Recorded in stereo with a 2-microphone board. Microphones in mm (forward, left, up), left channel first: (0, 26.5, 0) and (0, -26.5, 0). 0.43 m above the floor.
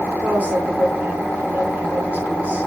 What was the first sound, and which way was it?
A woman speaking, 30° right (ahead or behind).